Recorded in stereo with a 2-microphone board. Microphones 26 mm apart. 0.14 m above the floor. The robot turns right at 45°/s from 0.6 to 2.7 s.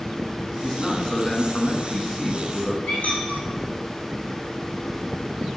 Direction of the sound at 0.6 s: 25° left (ahead or behind).